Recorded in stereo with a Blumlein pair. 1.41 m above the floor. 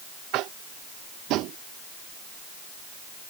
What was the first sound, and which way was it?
Tapping, 40° right.